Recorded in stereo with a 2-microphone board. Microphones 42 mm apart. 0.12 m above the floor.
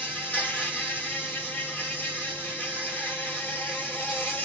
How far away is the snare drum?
I don't hear a snare drum.